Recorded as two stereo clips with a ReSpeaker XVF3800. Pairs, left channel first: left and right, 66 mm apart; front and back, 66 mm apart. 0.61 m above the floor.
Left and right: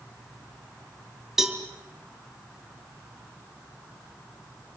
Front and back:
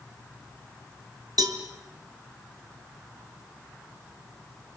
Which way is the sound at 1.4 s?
175° right.